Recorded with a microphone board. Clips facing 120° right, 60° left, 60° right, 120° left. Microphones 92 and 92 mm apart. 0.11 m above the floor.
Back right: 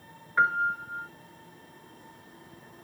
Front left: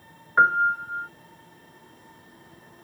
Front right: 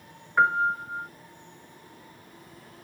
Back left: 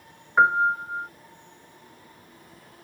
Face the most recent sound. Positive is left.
turn(degrees=65)